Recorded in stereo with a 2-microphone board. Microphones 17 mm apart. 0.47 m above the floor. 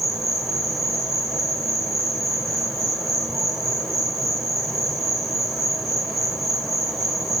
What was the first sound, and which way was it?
An insect, 5° right (ahead or behind).